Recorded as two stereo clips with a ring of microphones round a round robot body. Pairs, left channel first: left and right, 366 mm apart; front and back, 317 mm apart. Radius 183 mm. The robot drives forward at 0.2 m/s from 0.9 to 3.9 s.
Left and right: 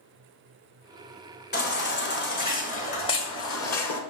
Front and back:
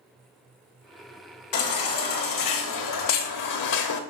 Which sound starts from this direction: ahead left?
A baby crying, at 1.5 s.